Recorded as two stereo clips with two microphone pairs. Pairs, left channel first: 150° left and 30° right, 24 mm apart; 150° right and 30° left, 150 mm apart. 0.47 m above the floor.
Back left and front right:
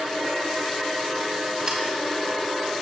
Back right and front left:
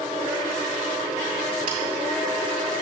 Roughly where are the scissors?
Ahead left.